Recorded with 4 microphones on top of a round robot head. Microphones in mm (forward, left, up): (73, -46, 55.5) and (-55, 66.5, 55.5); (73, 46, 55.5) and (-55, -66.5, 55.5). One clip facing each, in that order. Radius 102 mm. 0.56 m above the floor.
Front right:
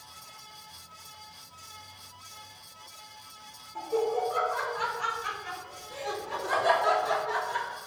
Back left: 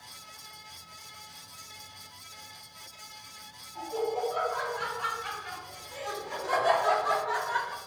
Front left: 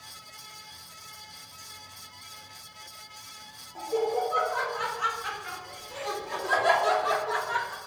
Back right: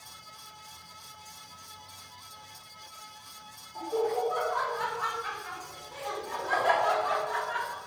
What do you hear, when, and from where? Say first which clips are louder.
3.8 s laughter: front right 3 dB, front left 1 dB; 25° right, 3 m; by 7.8 s 25° left, 1.7 m